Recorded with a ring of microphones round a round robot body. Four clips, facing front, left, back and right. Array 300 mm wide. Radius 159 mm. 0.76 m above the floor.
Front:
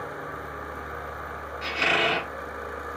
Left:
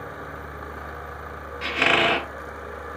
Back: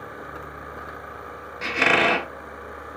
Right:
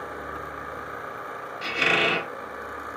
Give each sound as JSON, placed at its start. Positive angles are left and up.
{"t": 1.6, "sound": "a squeak", "azimuth_deg": 145, "distance_m": 0.8}